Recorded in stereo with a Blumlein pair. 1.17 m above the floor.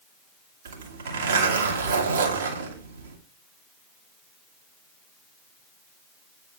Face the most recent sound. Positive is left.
turn(degrees=-65)